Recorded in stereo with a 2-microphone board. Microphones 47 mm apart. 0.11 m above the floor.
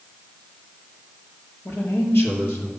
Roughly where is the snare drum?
I don't hear a snare drum.